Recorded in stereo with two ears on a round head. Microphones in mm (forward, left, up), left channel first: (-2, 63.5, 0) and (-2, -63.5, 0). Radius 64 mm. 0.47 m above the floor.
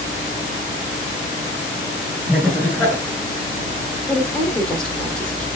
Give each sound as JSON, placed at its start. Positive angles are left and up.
{"t": 2.3, "sound": "laughter", "side_deg": -10, "distance_m": 1.7}
{"t": 4.1, "sound": "a woman speaking", "side_deg": 5, "distance_m": 0.9}